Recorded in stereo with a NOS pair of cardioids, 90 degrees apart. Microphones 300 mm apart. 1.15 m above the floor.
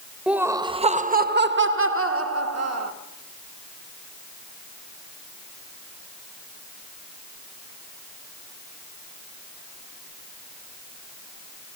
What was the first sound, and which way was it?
Laughter, 5° right.